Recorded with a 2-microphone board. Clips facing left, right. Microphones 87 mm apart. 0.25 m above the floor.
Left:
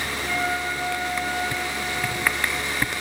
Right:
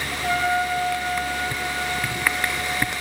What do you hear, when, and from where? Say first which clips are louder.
0.1 s a trumpet: right 6 dB; 75° right (ahead or behind), 1.7 m